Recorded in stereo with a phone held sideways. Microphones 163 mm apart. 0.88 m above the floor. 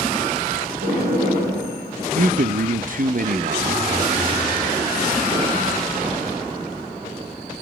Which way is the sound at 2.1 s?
60° right (ahead or behind).